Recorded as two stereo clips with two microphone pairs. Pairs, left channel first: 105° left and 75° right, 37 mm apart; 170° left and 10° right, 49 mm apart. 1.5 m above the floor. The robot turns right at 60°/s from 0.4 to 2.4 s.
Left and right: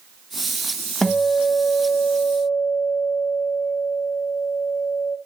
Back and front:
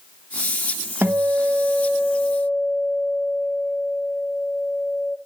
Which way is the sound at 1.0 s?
30° left.